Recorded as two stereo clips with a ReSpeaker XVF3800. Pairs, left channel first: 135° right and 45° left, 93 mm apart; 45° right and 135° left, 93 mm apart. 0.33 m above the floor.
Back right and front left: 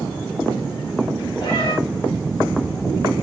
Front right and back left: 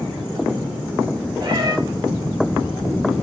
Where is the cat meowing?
Straight behind, 3.5 m.